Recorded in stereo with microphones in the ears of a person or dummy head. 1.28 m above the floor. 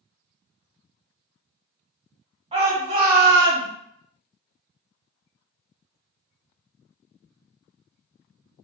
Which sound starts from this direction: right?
A shout, at 2.5 s.